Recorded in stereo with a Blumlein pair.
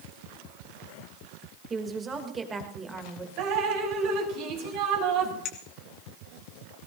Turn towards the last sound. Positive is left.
turn(degrees=30)